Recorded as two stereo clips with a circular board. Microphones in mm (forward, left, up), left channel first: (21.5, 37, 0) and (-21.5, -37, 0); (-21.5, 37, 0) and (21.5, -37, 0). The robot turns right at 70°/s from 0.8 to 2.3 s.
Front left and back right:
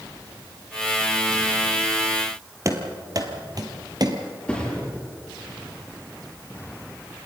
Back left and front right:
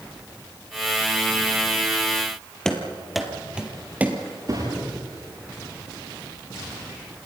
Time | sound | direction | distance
2.6 | running footsteps | 160° right | 2 m
4.5 | a thud | 20° right | 9.5 m